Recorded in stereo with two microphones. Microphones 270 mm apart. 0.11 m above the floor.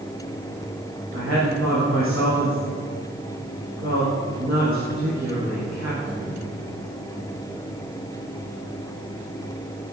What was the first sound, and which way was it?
A woman speaking, 50° right (ahead or behind).